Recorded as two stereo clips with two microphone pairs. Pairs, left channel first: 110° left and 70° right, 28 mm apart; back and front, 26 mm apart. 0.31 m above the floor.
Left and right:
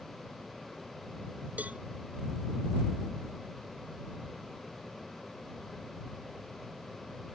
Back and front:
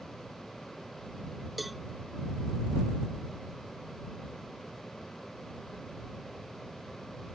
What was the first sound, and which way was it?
A cowbell, 85° right.